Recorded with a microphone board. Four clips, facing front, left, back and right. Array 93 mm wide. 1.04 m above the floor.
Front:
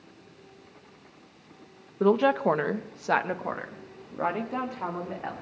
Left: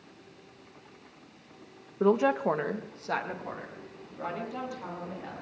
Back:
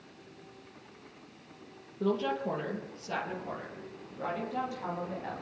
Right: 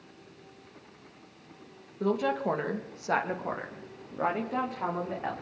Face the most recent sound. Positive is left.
turn(degrees=-45)